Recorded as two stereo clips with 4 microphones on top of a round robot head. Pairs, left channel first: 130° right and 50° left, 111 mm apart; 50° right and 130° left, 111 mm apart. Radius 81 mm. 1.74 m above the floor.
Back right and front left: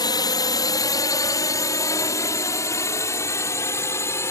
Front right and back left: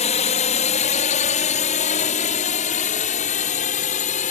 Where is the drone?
75° right; by 4.3 s 65° right.